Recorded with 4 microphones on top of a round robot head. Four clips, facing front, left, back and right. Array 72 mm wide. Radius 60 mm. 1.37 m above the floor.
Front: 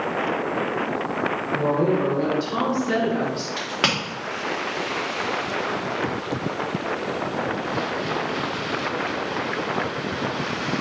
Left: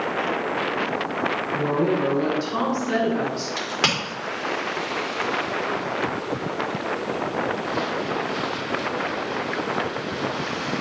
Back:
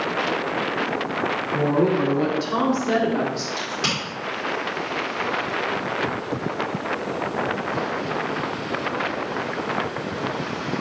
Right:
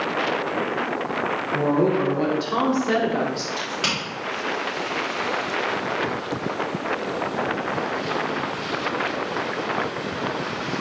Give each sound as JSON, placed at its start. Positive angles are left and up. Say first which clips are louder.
{"t": 1.5, "sound": "a woman speaking", "louder": "right 3 dB, back 1 dB", "azimuth_deg": -140, "distance_m": 3.0}
{"t": 3.6, "sound": "a crack", "louder": "left 2 dB, front 2 dB", "azimuth_deg": 30, "distance_m": 3.0}